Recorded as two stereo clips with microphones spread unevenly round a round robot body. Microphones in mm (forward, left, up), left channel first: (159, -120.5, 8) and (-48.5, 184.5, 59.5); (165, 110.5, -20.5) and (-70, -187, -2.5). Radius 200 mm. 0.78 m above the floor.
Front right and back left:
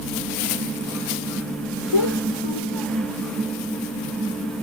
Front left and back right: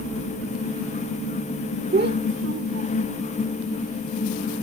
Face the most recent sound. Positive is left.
turn(degrees=-85)